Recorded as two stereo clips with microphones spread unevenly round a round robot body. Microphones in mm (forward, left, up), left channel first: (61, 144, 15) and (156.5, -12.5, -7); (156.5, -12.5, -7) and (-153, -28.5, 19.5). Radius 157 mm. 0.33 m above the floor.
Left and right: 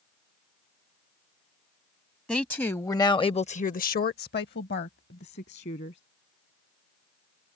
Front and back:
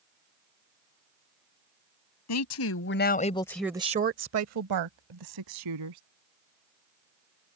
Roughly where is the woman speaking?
Ahead left.